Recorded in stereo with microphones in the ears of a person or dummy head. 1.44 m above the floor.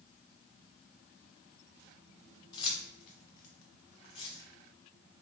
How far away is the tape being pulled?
No tape being pulled in this recording.